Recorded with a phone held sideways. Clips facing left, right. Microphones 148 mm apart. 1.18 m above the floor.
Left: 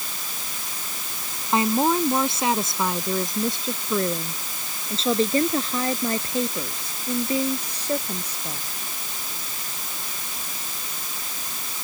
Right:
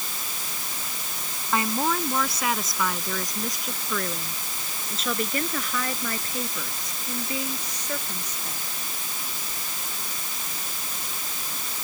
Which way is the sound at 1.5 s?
25° left (ahead or behind).